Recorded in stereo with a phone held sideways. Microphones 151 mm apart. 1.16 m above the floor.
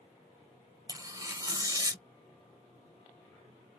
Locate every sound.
0.9 s tearing paper: 25° right (ahead or behind), 0.6 m